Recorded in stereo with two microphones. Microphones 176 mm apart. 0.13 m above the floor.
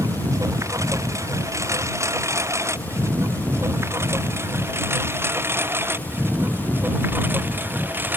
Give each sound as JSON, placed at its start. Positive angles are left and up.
{"t": 0.0, "sound": "a lawn mower", "side_deg": -20}